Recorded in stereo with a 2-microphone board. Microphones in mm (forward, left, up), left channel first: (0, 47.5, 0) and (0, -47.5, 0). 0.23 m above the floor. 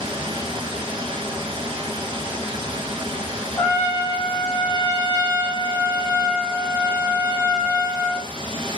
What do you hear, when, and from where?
0.0 s running water: 75° right (ahead or behind), 0.8 m
3.6 s a trumpet: 25° left (ahead or behind), 1.1 m